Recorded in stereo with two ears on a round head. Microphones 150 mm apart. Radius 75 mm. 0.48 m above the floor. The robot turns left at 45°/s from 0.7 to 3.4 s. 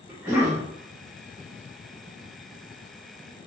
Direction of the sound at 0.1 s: 15° right (ahead or behind).